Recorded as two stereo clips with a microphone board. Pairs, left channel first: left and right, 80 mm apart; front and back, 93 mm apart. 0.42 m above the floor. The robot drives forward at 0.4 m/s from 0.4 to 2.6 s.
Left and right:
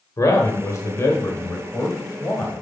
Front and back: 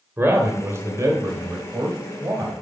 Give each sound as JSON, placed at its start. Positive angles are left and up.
{"t": 0.2, "sound": "a man speaking", "azimuth_deg": 125, "distance_m": 1.3}